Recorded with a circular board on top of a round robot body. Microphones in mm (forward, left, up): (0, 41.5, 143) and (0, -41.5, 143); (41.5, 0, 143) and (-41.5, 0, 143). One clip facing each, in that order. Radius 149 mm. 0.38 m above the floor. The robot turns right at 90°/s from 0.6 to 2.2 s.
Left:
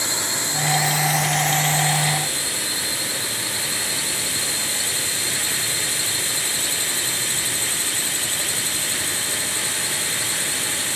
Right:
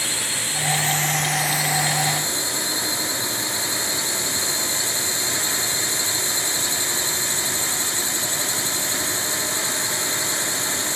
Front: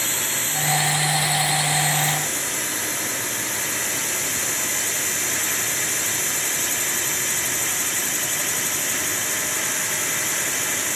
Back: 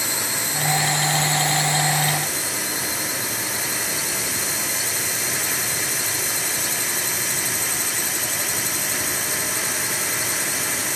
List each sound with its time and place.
0.0 s a drone: 115° left; by 11.0 s 100° right